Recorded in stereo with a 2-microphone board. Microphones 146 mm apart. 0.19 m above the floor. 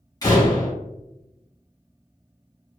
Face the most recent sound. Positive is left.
turn(degrees=25)  # may be behind; listen again after turning